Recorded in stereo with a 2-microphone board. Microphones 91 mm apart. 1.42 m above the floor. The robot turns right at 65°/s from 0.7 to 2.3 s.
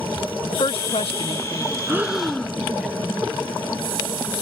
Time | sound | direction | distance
0.5 | a woman speaking | 70° left (ahead or behind) | ?
1.9 | breathing | 25° right (ahead or behind) | ?